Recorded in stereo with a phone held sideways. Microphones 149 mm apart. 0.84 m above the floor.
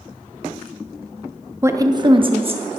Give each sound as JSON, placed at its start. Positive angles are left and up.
{"t": 1.6, "sound": "a woman speaking", "side_deg": -15, "distance_m": 0.6}